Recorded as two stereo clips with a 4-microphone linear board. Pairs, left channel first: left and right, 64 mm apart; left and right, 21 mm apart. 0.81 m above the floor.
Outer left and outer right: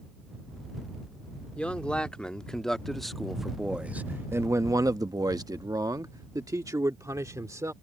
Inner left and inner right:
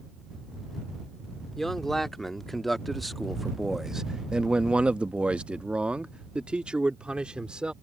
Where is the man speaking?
15° left (ahead or behind); by 7.7 s 50° right (ahead or behind).